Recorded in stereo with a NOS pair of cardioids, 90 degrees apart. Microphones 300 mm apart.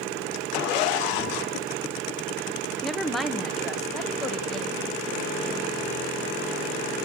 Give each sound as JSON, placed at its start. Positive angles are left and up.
{"t": 2.8, "sound": "a woman speaking", "azimuth_deg": 0, "distance_m": 1.1}